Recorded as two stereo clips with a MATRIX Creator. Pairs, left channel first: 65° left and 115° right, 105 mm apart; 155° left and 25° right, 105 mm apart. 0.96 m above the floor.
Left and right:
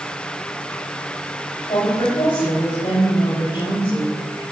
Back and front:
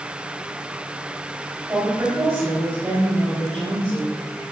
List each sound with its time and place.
1.7 s a woman speaking: 40° left, 4.5 m